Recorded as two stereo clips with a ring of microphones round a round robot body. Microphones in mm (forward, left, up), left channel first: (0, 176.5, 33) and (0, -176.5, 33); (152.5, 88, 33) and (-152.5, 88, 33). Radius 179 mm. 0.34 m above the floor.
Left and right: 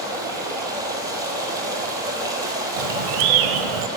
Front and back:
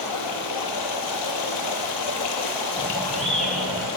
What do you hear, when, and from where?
0.0 s running water: 10° right, 1.0 m
2.8 s a bird: 90° right, 0.6 m